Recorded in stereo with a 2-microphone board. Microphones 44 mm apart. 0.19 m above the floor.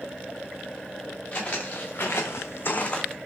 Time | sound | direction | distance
1.3 | footsteps | 35° left (ahead or behind) | 1.9 m